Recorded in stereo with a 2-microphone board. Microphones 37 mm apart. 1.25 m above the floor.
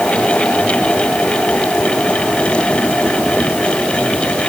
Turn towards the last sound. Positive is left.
No sound to turn to.